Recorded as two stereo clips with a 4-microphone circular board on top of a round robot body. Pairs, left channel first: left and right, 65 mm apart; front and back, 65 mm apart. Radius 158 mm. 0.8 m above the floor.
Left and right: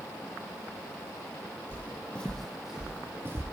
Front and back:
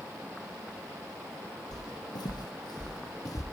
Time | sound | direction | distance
1.7 | footsteps | 30° left | 1.6 m